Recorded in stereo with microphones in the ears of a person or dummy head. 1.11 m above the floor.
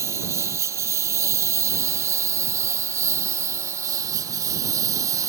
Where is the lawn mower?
15° right (ahead or behind).